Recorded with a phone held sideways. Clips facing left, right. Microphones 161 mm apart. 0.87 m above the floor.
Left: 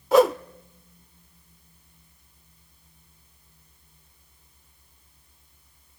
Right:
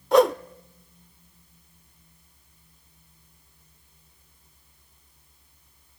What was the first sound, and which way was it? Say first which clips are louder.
A whoosh: even; centre (ahead or behind).